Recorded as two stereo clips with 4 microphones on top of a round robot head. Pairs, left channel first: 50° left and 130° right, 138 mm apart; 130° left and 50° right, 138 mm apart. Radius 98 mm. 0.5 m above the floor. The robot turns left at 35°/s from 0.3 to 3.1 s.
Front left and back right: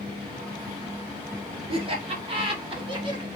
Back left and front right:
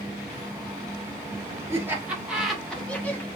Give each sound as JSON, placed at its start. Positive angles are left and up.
{"t": 1.7, "sound": "laughter", "azimuth_deg": -110, "distance_m": 1.6}